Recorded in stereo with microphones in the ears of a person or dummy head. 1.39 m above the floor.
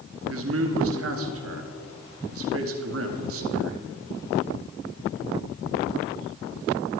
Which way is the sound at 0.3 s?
70° right (ahead or behind).